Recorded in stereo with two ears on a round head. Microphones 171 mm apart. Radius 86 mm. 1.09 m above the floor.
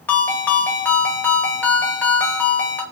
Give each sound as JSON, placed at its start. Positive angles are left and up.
{"t": 0.1, "sound": "a ringtone", "side_deg": 10, "distance_m": 0.8}